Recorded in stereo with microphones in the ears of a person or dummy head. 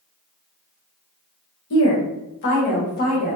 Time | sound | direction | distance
1.7 | a woman speaking | 70° left (ahead or behind) | 0.8 m